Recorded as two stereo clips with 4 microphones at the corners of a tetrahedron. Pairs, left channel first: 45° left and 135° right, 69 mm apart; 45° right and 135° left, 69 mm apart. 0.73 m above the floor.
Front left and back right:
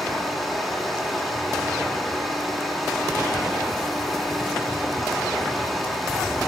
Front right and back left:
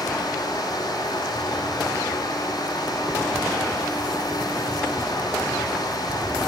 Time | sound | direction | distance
0.0 | running water | 45° right | 8.5 m